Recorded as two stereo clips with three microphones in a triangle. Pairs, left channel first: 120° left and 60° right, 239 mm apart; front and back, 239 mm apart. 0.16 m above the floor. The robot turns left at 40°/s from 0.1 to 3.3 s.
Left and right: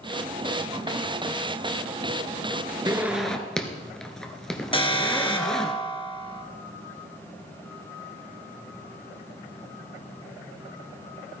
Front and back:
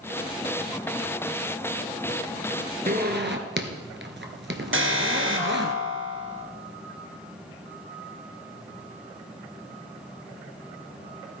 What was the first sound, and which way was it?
A zipper, 135° right.